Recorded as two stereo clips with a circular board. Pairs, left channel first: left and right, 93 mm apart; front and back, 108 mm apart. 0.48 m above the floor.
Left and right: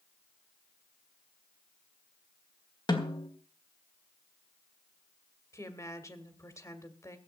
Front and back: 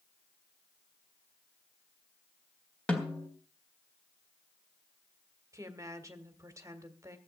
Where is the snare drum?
75° left, 2 m.